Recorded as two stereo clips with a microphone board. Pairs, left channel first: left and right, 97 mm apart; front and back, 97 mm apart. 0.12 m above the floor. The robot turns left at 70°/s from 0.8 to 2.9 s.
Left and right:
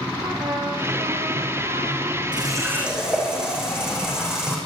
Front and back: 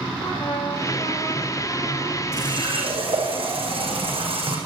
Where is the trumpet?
20° right, 4 m; by 2.2 s 115° right, 4 m.